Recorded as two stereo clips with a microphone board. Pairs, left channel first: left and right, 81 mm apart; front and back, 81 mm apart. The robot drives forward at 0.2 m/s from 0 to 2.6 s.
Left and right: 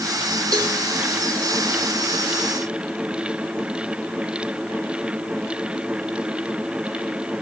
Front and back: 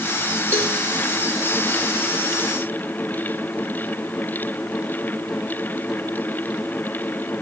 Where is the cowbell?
125° right, 7.5 m.